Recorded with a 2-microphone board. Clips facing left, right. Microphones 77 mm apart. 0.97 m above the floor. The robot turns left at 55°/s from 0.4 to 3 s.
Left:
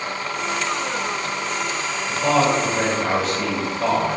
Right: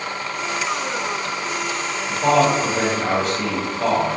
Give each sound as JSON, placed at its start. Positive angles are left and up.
{"t": 2.1, "sound": "a man speaking", "azimuth_deg": -105, "distance_m": 1.4}